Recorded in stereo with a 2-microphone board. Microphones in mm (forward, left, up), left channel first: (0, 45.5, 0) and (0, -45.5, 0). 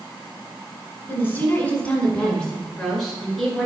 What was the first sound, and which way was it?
A woman speaking, 25° left (ahead or behind).